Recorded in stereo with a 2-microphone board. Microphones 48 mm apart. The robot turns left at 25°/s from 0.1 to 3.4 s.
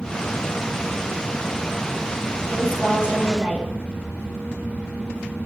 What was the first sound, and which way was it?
A woman speaking, 45° right (ahead or behind).